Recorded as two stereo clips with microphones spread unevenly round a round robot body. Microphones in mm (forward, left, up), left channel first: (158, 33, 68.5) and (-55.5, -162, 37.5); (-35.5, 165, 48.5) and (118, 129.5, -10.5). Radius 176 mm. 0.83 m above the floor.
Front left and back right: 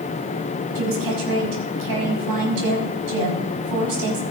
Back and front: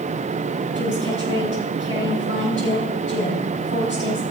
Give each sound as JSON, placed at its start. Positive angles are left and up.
{"t": 0.8, "sound": "a woman speaking", "azimuth_deg": -140, "distance_m": 5.5}